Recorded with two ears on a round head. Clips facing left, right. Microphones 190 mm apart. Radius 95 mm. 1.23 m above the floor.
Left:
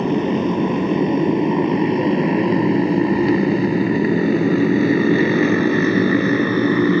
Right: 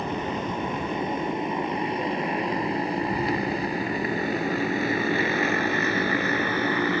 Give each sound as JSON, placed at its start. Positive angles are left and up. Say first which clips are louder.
{"t": 0.0, "sound": "a motorcycle", "louder": "left 12 dB", "side_deg": 60}